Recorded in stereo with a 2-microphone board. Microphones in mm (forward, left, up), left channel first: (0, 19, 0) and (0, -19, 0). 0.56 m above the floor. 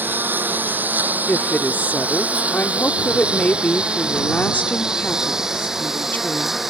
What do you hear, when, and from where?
0.0 s a lawn mower: 60° right (ahead or behind); by 6.7 s 5° right (ahead or behind)
1.3 s a woman speaking: 50° left (ahead or behind)